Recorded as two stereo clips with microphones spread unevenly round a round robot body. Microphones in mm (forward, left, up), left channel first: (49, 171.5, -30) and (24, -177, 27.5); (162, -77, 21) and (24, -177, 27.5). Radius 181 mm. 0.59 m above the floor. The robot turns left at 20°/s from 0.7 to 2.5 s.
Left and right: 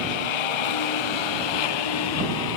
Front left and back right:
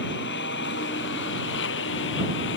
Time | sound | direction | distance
0.0 | a lawn mower | 95° left | ?